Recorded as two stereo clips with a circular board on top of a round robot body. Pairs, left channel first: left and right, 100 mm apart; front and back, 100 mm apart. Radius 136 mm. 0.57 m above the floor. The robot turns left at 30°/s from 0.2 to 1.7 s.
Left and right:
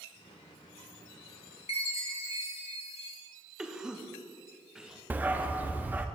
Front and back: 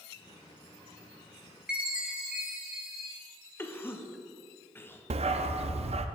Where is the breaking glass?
No breaking glass in this recording.